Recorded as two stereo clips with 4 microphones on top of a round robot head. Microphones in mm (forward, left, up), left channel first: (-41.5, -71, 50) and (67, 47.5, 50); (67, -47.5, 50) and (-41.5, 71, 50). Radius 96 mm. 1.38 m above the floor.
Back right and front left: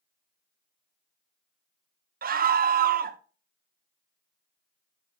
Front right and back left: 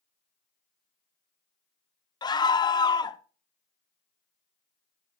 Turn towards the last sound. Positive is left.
turn(degrees=20)